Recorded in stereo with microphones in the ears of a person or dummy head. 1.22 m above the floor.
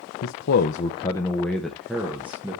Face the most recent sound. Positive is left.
turn(degrees=-10)  # may be behind; listen again after turning